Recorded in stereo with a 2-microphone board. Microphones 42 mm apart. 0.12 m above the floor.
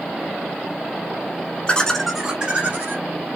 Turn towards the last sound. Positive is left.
turn(degrees=-50)  # may be behind; listen again after turning